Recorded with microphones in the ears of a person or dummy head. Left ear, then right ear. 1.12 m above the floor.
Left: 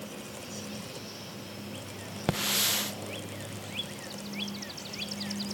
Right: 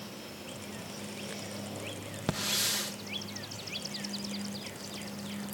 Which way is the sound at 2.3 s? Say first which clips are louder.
Left 3 dB; 20° left (ahead or behind).